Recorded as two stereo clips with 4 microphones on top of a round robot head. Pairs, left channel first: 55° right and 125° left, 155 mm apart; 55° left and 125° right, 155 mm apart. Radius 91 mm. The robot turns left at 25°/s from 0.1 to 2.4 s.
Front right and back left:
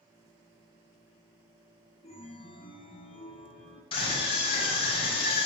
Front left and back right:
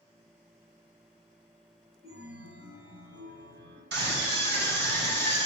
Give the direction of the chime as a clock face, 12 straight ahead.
3 o'clock.